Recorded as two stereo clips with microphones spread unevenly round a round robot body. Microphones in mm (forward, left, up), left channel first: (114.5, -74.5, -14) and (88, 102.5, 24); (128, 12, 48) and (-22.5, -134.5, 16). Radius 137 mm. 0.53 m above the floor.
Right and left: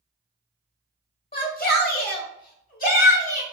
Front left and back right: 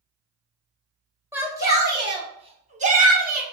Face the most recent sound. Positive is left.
turn(degrees=-110)